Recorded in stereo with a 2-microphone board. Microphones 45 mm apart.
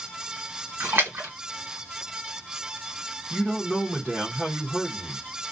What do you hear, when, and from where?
0.8 s a splash: 60° right (ahead or behind), 1.0 m
3.3 s a man speaking: 15° right (ahead or behind), 0.9 m